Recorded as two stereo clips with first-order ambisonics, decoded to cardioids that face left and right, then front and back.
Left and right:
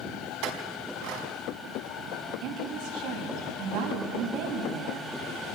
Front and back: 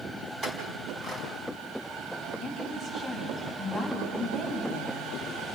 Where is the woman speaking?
105° right, 6.5 m.